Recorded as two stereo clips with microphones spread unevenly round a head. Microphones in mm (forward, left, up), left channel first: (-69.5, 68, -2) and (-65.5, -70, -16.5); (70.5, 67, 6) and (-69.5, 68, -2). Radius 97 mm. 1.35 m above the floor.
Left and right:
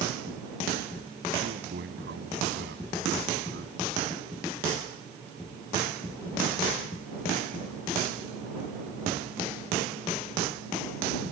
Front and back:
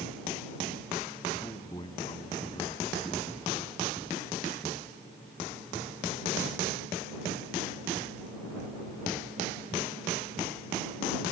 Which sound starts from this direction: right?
A man speaking, at 1.4 s.